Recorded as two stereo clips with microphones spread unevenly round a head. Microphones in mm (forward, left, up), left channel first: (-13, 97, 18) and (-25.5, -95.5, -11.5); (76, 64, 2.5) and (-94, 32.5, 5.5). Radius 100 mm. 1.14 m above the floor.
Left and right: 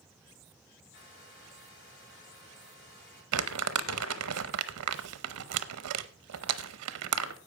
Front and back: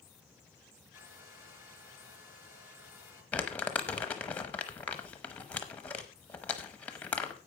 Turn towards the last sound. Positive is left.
turn(degrees=-75)